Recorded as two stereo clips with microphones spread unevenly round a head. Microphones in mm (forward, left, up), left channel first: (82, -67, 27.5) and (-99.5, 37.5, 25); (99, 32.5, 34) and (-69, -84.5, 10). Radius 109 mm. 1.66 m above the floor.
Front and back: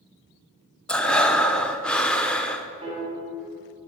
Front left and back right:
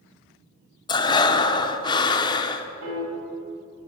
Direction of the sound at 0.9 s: 50° left.